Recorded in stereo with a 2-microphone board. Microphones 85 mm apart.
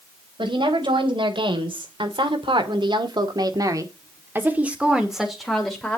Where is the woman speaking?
75° right (ahead or behind), 3.5 m; by 6.0 s 10° left (ahead or behind), 2.5 m.